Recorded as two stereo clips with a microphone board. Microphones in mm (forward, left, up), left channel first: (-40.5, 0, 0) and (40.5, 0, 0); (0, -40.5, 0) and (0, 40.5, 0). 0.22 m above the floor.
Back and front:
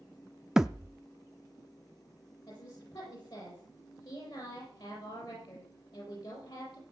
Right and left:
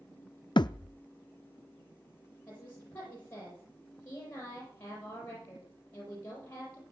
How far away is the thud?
About 0.5 m.